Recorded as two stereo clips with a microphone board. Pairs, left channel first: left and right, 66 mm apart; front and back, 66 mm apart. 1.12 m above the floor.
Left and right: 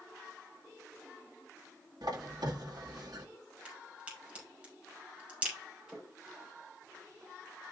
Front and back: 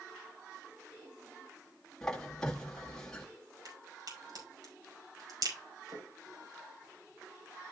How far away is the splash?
About 7 m.